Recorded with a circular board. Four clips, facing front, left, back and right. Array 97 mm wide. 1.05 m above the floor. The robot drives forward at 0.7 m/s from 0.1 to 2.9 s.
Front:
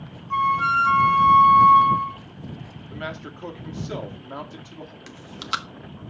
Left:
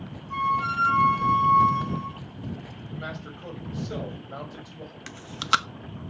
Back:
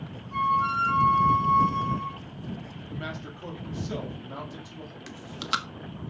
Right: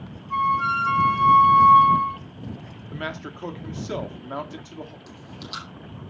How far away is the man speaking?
About 1.7 m.